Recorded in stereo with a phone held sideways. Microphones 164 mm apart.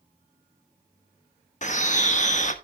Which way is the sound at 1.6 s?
45° left (ahead or behind).